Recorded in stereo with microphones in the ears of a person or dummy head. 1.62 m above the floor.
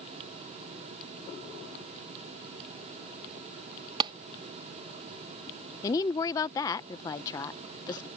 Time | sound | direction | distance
4.0 | a clap | 25° right (ahead or behind) | ?
5.8 | a woman speaking | 25° left (ahead or behind) | ?